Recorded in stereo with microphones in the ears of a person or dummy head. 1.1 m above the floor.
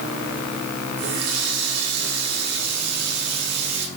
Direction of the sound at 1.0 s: 85° right.